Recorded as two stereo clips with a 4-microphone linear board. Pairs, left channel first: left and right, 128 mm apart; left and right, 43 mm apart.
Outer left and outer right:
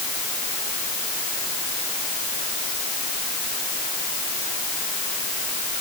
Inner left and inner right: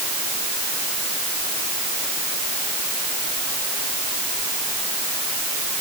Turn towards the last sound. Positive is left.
No sound to turn to.